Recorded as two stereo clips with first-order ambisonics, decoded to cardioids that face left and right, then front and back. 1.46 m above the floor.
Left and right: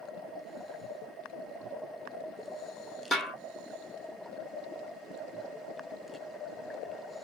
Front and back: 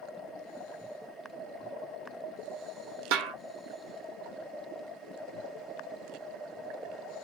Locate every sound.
3.1 s a snare drum: straight behind, 0.9 m